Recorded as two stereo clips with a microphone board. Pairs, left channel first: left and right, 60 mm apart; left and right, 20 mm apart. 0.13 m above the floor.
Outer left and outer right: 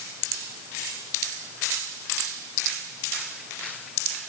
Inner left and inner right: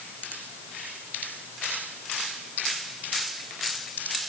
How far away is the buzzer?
No buzzer in this recording.